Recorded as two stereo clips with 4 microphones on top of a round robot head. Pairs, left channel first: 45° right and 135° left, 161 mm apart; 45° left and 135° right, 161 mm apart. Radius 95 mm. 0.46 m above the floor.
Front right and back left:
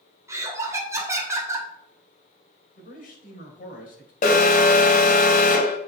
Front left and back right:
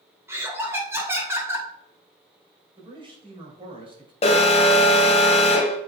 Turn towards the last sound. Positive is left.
turn(degrees=-5)